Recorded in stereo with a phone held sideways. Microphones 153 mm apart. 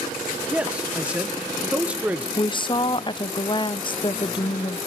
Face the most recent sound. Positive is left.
turn(degrees=30)  # may be behind; listen again after turning